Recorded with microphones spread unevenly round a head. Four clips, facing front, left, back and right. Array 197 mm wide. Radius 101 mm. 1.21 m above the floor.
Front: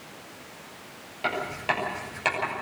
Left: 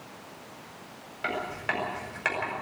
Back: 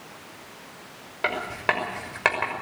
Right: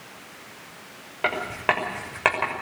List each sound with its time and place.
1.2 s writing: 120° right, 6 m